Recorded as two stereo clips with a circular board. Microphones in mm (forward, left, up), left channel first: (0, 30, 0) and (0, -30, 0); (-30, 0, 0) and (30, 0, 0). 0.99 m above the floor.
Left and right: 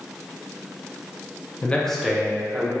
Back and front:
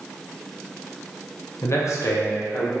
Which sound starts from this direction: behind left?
A man speaking, at 1.6 s.